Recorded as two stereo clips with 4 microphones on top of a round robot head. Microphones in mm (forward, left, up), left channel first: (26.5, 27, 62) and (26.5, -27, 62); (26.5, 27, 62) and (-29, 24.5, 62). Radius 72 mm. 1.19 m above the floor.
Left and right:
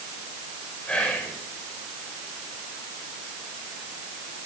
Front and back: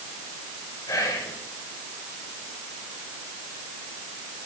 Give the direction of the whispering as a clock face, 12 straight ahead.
11 o'clock.